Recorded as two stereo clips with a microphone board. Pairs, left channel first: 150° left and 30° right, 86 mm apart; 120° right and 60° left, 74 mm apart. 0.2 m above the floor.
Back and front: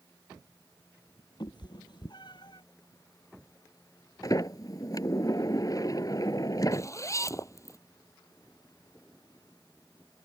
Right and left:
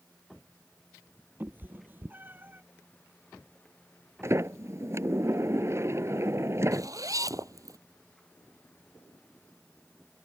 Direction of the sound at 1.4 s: 120° left.